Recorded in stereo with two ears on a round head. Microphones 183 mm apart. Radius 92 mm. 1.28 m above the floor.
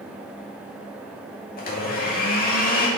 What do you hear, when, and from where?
1.6 s a blender: 45° left (ahead or behind), 2.5 m